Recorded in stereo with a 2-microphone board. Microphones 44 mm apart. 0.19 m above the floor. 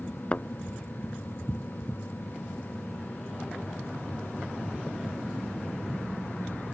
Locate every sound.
0.3 s a thud: 30° left (ahead or behind)